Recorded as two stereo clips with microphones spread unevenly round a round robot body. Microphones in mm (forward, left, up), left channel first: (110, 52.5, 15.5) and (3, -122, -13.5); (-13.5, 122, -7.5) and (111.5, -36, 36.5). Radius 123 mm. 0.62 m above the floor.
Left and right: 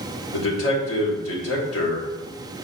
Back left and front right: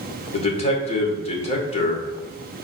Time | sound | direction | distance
0.3 | a man speaking | 80° left | 2.5 m